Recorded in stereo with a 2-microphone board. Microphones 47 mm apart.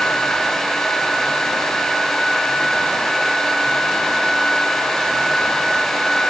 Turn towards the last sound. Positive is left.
No sound to turn to.